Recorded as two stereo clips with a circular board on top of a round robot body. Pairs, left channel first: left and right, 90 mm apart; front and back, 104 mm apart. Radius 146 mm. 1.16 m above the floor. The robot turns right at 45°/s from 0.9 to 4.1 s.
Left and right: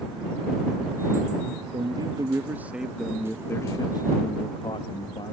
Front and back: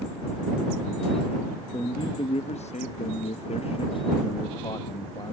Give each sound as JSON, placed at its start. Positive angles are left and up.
{"t": 1.7, "sound": "a man speaking", "azimuth_deg": -55}